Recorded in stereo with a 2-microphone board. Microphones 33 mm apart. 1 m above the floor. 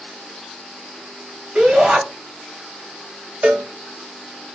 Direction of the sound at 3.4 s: 40° right (ahead or behind).